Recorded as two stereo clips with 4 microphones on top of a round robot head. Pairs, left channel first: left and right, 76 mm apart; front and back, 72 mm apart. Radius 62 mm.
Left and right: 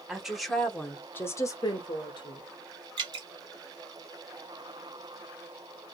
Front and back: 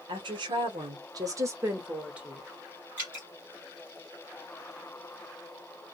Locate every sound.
0.1 s a woman speaking: 170° right, 1.0 m; by 2.5 s 95° left, 0.9 m
3.0 s dripping: 105° right, 1.6 m